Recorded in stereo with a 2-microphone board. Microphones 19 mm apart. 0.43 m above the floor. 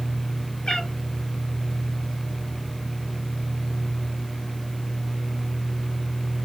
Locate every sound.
0.7 s a cat meowing: 85° left, 1.6 m